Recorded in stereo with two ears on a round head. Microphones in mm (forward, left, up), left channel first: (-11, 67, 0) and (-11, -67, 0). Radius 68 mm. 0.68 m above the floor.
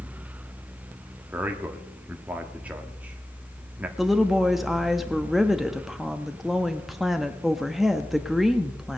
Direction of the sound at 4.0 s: Centre (ahead or behind).